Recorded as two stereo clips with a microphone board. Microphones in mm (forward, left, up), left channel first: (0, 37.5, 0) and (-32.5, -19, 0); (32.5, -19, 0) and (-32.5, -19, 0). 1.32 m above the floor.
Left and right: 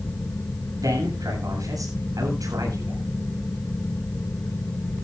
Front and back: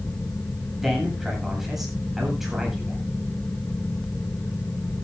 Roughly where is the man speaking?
Right.